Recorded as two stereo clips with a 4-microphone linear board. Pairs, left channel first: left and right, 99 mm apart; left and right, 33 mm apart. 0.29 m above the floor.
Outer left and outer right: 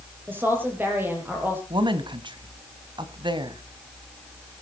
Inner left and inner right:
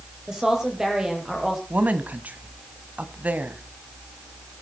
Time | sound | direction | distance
0.3 | a woman speaking | 20° right (ahead or behind) | 6.5 m
1.7 | a woman speaking | 55° right (ahead or behind) | 1.7 m